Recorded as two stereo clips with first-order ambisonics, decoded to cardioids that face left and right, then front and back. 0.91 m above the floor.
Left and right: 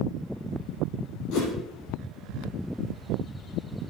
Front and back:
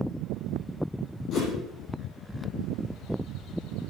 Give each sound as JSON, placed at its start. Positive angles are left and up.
{"t": 1.3, "sound": "a whoosh", "azimuth_deg": 60, "distance_m": 6.0}